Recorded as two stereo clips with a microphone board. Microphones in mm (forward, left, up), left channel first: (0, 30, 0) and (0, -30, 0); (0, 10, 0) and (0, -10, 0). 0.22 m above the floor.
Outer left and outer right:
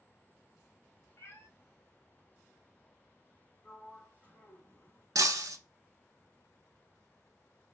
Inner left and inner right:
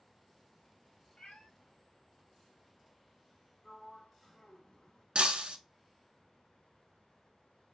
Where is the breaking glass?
75° right (ahead or behind), 0.5 m.